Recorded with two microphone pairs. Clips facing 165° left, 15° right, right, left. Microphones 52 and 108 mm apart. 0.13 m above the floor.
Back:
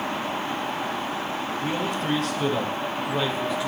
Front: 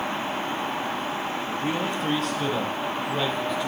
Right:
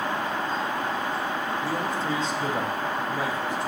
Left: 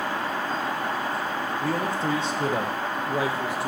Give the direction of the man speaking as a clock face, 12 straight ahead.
10 o'clock.